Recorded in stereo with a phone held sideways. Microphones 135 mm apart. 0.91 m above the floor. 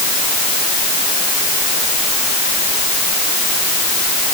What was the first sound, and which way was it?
Only background noise.